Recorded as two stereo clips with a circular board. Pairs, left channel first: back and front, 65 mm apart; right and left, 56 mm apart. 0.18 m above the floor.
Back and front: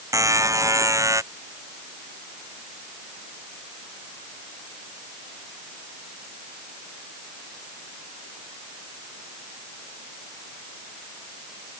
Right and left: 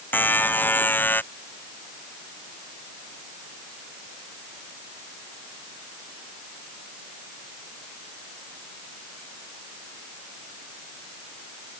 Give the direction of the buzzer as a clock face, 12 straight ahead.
1 o'clock.